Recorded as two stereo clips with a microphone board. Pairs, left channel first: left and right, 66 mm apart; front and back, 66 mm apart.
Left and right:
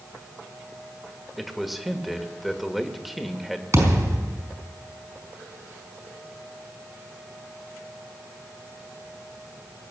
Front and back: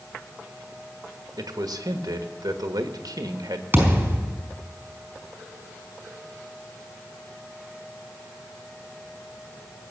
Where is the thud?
120° right, 4.5 m.